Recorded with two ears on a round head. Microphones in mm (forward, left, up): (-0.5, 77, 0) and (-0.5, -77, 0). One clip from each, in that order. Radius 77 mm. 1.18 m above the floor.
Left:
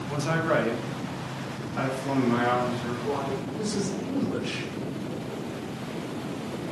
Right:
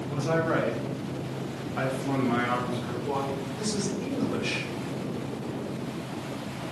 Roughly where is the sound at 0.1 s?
Left.